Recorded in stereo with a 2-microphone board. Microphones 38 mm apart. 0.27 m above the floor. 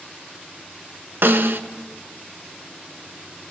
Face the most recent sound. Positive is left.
turn(degrees=-70)  # may be behind; listen again after turning